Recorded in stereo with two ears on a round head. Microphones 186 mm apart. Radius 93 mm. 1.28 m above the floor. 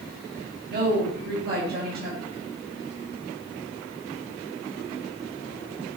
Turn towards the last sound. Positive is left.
turn(degrees=-50)  # may be behind; listen again after turning